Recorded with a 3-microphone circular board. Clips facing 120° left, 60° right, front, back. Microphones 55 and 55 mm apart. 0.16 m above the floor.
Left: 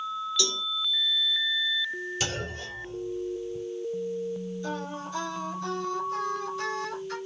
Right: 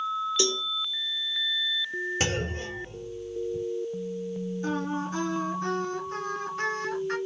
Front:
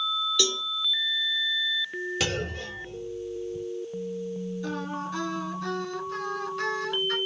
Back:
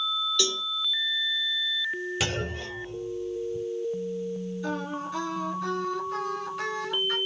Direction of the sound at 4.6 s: 95° right.